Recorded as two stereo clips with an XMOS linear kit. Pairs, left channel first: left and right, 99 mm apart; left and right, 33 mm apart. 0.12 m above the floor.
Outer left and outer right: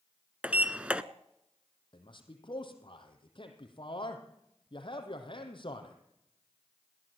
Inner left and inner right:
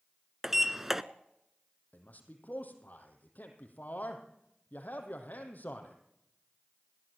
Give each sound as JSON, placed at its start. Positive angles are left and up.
{"t": 0.4, "sound": "a sliding door", "side_deg": -10, "distance_m": 0.7}
{"t": 1.9, "sound": "a man speaking", "side_deg": 55, "distance_m": 3.5}